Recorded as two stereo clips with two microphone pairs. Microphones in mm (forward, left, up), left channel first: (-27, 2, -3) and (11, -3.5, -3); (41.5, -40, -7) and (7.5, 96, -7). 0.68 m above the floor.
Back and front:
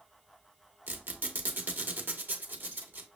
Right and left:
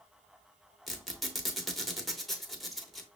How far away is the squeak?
About 0.8 m.